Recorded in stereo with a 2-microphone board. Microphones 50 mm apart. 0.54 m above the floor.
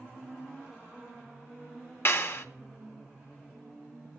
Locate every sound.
2.0 s a clap: 55° left (ahead or behind), 0.9 m